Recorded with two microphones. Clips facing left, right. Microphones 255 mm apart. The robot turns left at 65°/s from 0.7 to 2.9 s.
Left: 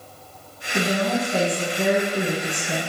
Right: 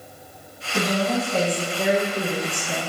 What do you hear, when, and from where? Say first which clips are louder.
0.7 s a woman speaking: even; straight behind, 1.3 m; by 2.8 s 45° left, 1.3 m